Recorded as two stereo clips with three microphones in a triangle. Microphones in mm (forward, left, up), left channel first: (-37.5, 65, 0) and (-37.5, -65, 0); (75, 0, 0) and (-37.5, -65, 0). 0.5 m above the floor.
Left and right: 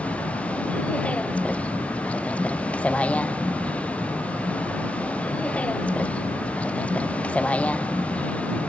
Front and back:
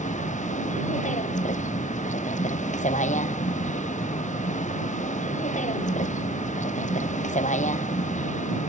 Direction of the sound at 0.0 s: 10° left.